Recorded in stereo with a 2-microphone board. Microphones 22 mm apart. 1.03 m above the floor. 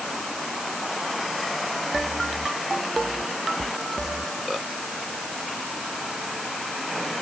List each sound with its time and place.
Only background noise.